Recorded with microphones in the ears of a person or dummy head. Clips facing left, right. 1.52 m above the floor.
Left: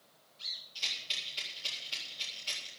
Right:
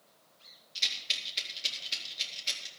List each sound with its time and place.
0.8 s a rattle: 25° right (ahead or behind), 4 m